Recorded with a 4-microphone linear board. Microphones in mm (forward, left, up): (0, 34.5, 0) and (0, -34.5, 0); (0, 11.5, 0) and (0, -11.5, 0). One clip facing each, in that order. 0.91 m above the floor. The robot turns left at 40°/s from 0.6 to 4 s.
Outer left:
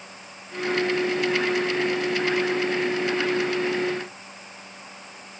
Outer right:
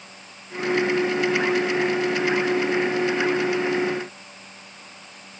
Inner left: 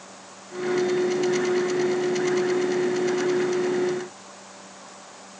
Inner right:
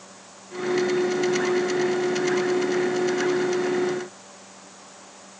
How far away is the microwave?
I don't hear a microwave.